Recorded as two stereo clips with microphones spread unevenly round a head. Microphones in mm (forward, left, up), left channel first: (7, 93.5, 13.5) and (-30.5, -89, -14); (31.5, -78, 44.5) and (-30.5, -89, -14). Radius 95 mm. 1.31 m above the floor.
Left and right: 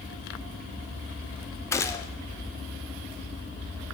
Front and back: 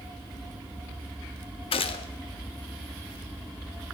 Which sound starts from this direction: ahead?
A gunshot, at 1.7 s.